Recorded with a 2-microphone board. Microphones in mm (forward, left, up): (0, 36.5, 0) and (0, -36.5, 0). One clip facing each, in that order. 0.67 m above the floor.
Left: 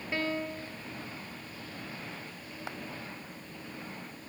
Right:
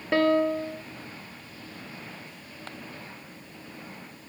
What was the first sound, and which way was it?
A piano, 80° right.